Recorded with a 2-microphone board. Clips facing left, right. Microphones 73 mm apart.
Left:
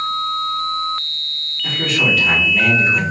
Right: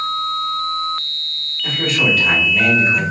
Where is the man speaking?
Centre (ahead or behind), 1.9 m.